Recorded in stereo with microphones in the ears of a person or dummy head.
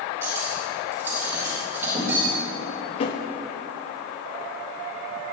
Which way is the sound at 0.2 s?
10° right (ahead or behind).